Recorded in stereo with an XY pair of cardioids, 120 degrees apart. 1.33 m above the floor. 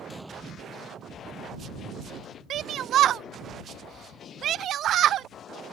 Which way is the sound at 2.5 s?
60° right.